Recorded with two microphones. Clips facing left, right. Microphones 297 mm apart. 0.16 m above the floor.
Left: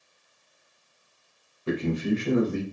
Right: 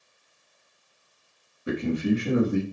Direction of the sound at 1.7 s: 15° right (ahead or behind).